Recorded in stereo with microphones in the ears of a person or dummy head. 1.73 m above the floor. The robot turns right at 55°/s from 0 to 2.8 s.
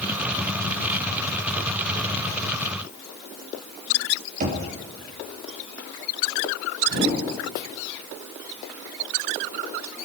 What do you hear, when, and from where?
4.4 s knocking: 50° right (ahead or behind), 2.5 m
6.9 s a whoosh: 60° right (ahead or behind), 6.5 m